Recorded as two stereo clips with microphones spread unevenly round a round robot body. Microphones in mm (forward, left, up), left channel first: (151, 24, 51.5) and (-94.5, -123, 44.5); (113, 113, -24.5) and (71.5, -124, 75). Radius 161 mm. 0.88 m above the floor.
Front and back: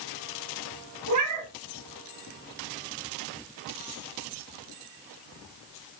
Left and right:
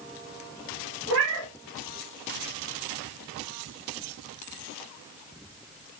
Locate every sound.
1.1 s a cat meowing: 130° right, 2 m